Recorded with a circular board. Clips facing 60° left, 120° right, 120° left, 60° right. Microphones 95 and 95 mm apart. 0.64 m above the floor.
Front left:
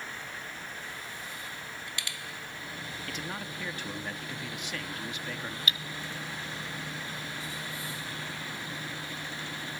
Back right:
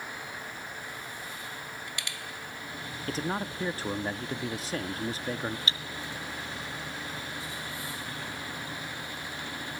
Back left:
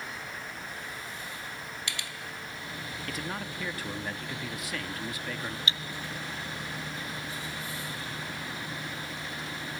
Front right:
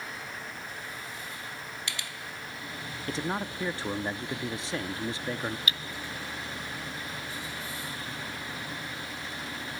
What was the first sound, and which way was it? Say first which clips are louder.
A man speaking: back right 9 dB, front right 6 dB; 100° right.